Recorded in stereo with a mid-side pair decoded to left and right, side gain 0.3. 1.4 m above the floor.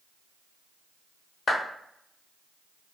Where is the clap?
65° left, 1.2 m.